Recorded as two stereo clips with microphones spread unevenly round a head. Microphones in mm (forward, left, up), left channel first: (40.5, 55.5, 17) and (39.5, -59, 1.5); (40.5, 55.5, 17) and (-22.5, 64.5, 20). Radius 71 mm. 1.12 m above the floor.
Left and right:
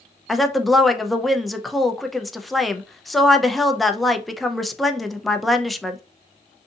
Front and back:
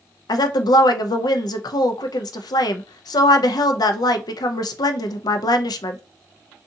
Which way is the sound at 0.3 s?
Straight ahead.